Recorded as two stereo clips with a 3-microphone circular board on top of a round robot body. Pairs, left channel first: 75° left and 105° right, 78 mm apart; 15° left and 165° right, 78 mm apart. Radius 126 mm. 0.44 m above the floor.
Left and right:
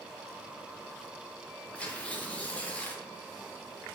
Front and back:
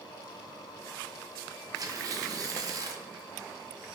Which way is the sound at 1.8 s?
150° left.